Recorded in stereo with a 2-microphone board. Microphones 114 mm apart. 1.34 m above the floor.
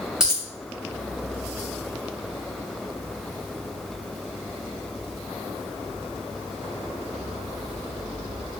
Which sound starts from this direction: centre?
A dropped coin, at 0.2 s.